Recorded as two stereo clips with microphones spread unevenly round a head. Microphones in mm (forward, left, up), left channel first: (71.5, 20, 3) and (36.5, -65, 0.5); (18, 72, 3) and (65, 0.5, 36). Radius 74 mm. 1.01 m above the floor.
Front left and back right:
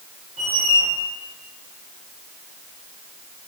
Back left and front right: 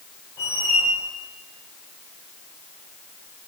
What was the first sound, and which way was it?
A squeak, 155° right.